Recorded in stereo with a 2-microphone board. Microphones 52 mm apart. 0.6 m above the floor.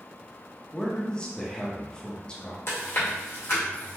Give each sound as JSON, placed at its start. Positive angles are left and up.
{"t": 0.7, "sound": "a man speaking", "side_deg": 15, "distance_m": 0.6}
{"t": 2.7, "sound": "chewing", "side_deg": 55, "distance_m": 1.3}